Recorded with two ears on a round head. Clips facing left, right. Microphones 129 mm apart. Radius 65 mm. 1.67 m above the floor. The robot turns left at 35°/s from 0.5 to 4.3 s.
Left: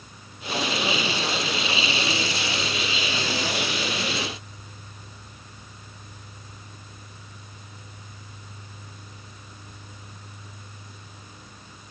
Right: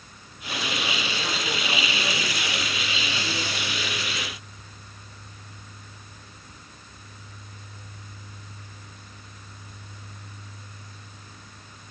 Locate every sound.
Only background noise.